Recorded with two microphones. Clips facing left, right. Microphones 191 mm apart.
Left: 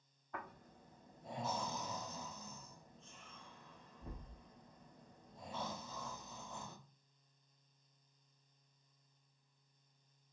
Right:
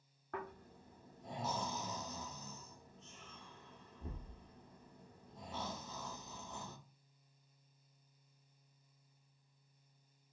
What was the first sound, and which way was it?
Snoring, 75° right (ahead or behind).